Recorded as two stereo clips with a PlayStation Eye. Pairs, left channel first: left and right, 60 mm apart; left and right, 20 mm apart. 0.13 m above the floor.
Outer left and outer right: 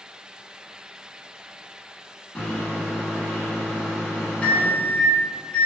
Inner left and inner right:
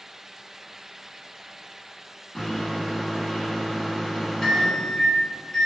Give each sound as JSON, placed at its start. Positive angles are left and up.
{"t": 2.4, "sound": "a microwave", "side_deg": 20, "distance_m": 0.8}